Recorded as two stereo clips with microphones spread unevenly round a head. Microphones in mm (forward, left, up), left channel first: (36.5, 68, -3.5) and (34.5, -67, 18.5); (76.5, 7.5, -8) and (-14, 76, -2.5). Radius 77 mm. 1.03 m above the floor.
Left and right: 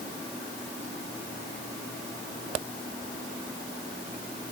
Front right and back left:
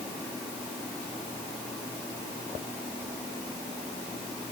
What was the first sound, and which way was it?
Only background noise.